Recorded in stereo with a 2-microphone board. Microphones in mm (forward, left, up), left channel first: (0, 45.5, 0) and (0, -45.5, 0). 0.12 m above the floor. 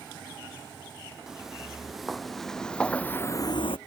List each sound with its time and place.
1.3 s footsteps: 5° right (ahead or behind); by 3.8 s 85° left